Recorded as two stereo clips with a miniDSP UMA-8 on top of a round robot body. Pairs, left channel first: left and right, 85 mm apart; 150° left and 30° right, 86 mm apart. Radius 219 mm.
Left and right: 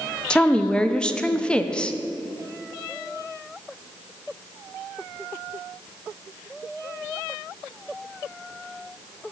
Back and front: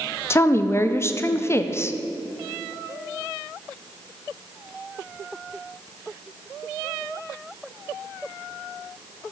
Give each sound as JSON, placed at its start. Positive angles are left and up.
{"t": 0.3, "sound": "a woman speaking", "azimuth_deg": 160, "distance_m": 0.6}